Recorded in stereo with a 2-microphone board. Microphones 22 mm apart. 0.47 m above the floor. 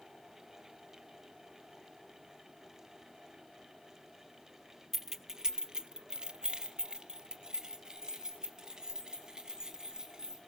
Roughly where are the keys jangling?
Centre.